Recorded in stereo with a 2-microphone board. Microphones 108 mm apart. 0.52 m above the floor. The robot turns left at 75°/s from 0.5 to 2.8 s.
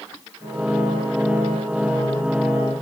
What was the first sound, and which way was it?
Only background noise.